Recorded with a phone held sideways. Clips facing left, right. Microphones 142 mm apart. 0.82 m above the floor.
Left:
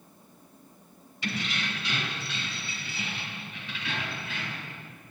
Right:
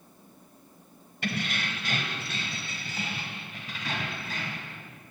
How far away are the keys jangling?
About 3 m.